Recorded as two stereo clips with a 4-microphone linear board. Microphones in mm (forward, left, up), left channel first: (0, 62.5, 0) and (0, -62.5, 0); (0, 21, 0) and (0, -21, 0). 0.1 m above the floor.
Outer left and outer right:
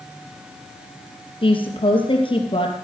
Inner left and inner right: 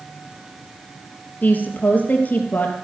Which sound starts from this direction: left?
A woman speaking, at 1.4 s.